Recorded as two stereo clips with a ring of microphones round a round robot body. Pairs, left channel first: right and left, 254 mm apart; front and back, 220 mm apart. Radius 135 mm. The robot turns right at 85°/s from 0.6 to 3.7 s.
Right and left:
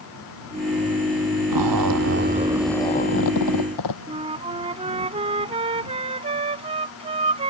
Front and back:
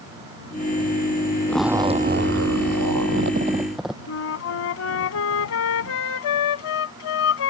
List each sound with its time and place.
1.5 s a zipper: 80° left; by 4.0 s 90° right
4.1 s a flute: 20° left